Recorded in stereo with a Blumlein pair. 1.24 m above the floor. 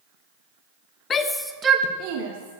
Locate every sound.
1.1 s a shout: 25° left, 1.1 m; by 2.6 s 60° right, 1.8 m